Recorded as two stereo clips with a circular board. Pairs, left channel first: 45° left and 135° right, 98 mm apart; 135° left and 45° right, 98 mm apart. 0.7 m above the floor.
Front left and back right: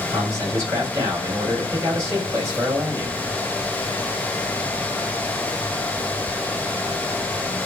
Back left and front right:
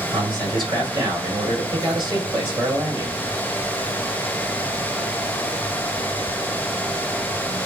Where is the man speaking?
85° right, 1.9 m.